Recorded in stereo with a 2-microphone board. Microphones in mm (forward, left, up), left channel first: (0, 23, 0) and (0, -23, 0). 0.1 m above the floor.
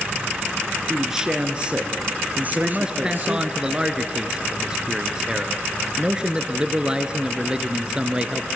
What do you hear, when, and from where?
0.9 s a man speaking: 10° right (ahead or behind), 1.4 m; by 3.5 s 50° right (ahead or behind), 2 m
2.5 s a man speaking: 20° right (ahead or behind), 1.1 m